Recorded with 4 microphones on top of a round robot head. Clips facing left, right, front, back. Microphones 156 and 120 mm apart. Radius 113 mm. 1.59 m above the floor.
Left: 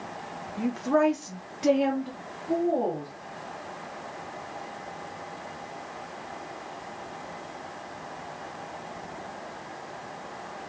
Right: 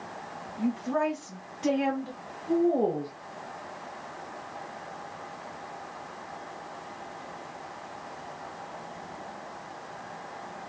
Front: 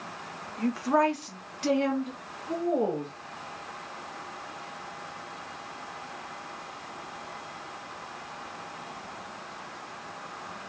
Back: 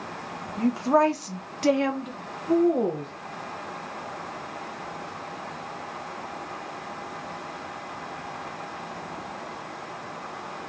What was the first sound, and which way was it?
A woman speaking, 115° left.